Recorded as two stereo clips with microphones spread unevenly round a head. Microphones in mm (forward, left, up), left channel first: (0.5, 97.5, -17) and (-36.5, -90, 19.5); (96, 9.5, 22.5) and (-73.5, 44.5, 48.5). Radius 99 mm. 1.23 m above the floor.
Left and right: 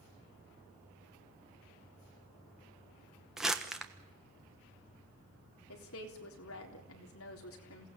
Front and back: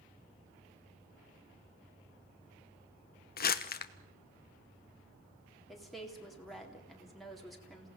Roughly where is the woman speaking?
Left.